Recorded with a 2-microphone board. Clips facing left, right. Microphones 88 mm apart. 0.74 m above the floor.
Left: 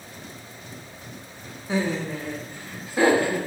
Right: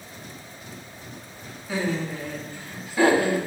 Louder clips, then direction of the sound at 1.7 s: Left 1 dB; 25° left (ahead or behind).